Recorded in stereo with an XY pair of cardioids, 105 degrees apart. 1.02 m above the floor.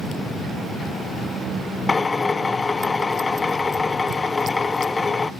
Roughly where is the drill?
Ahead left.